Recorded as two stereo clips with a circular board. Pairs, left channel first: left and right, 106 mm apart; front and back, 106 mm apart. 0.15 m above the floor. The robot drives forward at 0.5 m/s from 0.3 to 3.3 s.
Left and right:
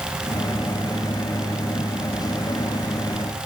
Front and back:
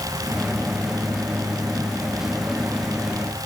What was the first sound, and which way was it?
Only background noise.